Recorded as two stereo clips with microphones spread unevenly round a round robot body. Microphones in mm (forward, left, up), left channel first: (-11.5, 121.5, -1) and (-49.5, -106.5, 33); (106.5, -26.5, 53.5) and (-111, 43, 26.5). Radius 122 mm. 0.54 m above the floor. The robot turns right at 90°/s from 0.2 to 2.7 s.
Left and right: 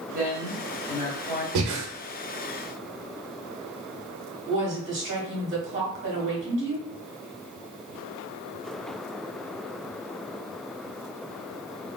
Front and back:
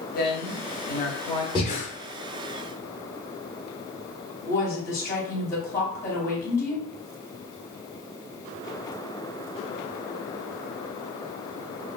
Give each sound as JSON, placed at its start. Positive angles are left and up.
{"t": 0.1, "sound": "a woman speaking", "azimuth_deg": -55, "distance_m": 0.9}
{"t": 1.6, "sound": "breathing", "azimuth_deg": -90, "distance_m": 0.6}
{"t": 4.5, "sound": "a woman speaking", "azimuth_deg": -90, "distance_m": 1.1}